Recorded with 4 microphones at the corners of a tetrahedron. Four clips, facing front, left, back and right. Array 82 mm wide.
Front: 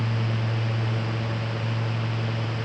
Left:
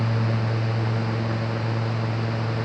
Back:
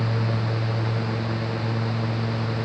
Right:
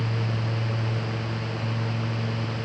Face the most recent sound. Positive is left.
No sound to turn to.